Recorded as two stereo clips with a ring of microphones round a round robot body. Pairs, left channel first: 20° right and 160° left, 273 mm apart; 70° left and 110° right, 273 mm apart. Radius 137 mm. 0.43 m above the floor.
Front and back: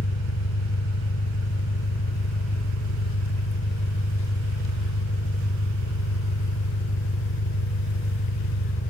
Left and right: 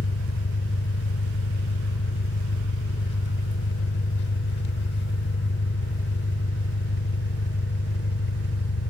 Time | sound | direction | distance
0.0 | an engine running | 20° left | 0.8 m